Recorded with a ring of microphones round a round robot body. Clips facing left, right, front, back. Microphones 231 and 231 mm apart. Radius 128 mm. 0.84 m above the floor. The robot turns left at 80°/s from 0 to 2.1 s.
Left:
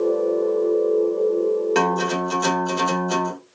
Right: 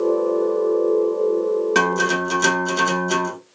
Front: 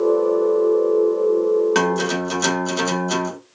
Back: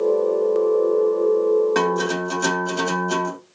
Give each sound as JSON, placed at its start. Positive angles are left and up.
{"t": 1.8, "sound": "a guitar", "azimuth_deg": -25, "distance_m": 1.2}